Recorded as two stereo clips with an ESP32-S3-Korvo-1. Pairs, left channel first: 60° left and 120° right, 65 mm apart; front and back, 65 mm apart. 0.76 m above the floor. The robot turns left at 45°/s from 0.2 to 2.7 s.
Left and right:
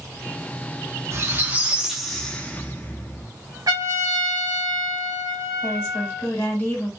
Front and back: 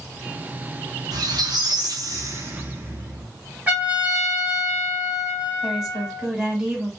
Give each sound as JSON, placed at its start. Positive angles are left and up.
{"t": 1.1, "sound": "a squeak", "azimuth_deg": -170, "distance_m": 0.7}
{"t": 3.7, "sound": "a trumpet", "azimuth_deg": -115, "distance_m": 1.4}
{"t": 5.6, "sound": "a woman speaking", "azimuth_deg": 100, "distance_m": 1.6}